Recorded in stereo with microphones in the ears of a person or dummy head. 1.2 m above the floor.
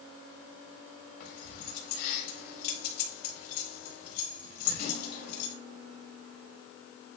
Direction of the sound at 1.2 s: 55° left (ahead or behind).